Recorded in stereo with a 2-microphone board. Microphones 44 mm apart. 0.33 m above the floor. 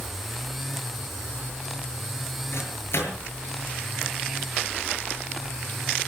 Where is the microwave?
55° left (ahead or behind), 6 m.